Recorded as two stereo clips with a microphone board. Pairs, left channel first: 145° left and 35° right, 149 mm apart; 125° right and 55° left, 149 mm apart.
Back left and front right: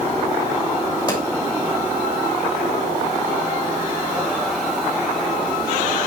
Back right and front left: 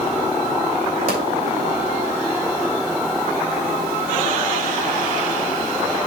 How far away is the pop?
About 2.5 m.